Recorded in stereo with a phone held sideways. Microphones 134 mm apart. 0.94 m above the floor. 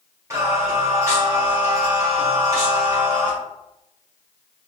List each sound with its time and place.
0.3 s singing: 20° right (ahead or behind), 1.4 m